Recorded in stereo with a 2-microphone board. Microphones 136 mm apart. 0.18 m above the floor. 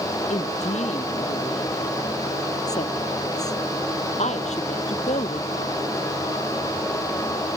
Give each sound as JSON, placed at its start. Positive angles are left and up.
{"t": 0.3, "sound": "a woman speaking", "side_deg": 60}